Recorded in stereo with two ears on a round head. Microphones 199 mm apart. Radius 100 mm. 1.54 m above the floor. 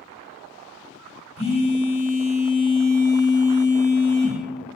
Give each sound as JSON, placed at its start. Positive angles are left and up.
{"t": 1.4, "sound": "a phone buzzing", "side_deg": 30, "distance_m": 1.0}